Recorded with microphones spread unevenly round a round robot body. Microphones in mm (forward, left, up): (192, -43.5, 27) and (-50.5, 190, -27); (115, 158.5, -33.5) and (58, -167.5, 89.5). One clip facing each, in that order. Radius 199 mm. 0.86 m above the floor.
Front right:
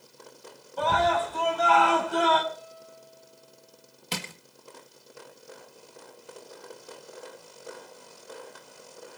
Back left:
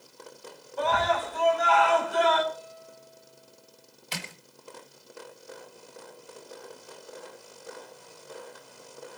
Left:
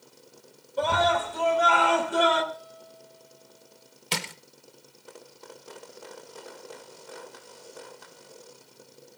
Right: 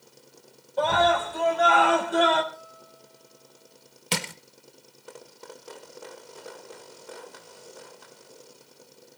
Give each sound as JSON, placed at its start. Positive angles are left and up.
{"t": 0.8, "sound": "a scream", "azimuth_deg": -5, "distance_m": 6.0}
{"t": 2.5, "sound": "a guitar", "azimuth_deg": 40, "distance_m": 9.5}
{"t": 4.1, "sound": "crushing", "azimuth_deg": -95, "distance_m": 1.2}